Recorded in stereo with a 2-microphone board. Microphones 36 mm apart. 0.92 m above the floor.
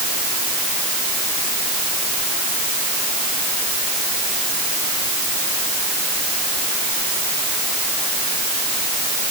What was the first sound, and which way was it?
Only background noise.